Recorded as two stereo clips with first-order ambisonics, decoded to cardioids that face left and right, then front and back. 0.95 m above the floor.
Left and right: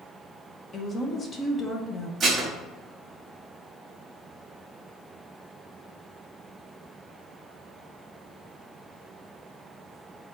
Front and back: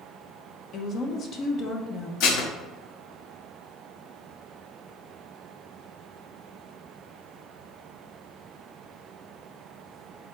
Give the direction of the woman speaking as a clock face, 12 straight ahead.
11 o'clock.